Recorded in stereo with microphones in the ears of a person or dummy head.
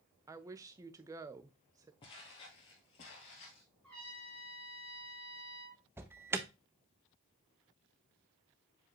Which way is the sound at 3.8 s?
5° left (ahead or behind).